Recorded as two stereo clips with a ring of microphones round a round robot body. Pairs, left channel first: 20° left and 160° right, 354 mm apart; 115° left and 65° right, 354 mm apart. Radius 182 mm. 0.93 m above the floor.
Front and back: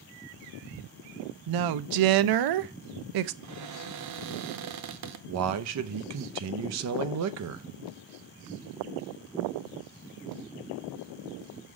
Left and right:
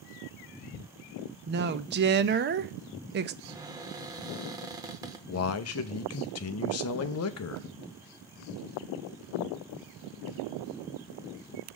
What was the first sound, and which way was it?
A woman speaking, 130° right.